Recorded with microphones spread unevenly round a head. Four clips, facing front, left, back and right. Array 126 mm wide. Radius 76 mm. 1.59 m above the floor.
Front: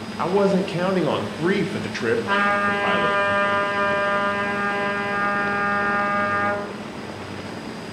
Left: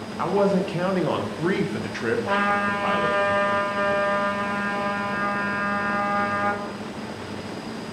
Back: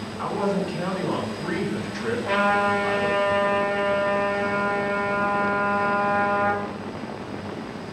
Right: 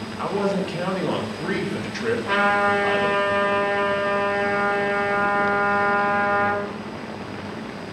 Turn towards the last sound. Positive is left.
turn(degrees=140)